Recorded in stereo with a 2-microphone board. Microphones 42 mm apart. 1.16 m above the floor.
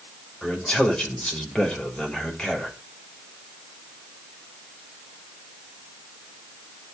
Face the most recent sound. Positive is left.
turn(degrees=15)  # may be behind; listen again after turning